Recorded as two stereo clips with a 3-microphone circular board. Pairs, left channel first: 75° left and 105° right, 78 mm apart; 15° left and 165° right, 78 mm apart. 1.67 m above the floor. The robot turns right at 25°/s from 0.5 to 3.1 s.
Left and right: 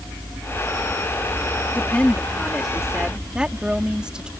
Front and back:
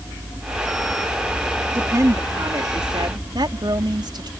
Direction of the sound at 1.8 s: 140° left.